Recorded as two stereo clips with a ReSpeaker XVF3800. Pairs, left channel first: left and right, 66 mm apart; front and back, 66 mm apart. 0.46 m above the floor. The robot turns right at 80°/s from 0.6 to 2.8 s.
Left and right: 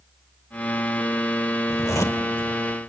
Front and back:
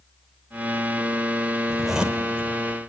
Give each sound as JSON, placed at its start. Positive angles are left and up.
{"t": 1.7, "sound": "a zipper", "azimuth_deg": 80, "distance_m": 0.9}